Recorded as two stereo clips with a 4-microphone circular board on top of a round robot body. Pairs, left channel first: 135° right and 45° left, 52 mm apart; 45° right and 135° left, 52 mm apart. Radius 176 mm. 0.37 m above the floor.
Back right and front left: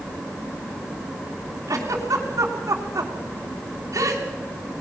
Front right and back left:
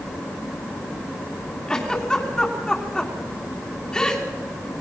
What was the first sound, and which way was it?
A giggle, 30° left.